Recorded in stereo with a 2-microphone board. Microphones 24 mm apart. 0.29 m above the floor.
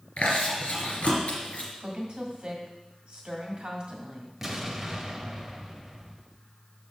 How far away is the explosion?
About 0.9 m.